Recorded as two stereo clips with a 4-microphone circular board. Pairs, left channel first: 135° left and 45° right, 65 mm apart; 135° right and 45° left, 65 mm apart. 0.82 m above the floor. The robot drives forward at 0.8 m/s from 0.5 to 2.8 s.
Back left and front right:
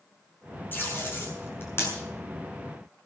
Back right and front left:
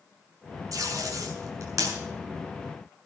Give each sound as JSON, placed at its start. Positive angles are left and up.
{"t": 0.7, "sound": "tape being pulled", "azimuth_deg": 75, "distance_m": 6.5}